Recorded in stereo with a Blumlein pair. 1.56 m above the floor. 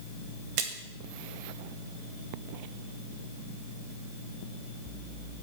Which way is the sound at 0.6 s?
45° right.